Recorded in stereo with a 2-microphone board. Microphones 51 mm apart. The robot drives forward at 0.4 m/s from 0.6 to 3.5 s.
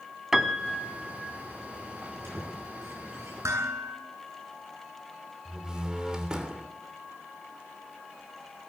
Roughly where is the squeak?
Right.